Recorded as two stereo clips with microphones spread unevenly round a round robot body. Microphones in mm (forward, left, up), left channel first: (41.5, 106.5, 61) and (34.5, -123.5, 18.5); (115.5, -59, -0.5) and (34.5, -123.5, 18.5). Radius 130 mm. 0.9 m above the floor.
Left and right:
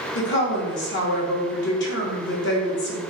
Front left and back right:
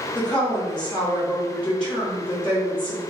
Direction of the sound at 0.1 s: 100° left.